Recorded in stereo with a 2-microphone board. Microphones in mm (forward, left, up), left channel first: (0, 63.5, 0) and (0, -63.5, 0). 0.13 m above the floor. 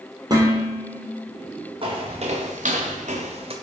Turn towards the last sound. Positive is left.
turn(degrees=-50)  # may be behind; listen again after turning